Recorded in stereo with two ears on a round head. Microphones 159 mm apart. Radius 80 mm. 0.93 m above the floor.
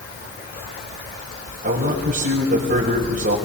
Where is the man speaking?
55° right (ahead or behind), 5.5 m.